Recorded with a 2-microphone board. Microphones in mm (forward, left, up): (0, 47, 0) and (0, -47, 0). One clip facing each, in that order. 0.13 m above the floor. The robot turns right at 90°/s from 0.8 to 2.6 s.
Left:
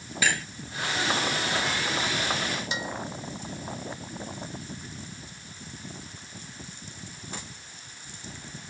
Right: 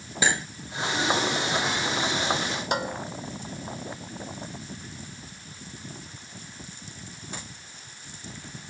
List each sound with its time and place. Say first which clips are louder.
0.2 s cutlery clinking: right 2 dB; 25° right (ahead or behind)
2.7 s dishes clattering: right 5 dB; 55° right (ahead or behind)